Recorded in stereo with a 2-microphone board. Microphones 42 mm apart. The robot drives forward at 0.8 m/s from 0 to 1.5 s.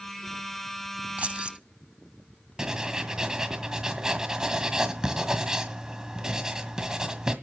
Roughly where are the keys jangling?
Right.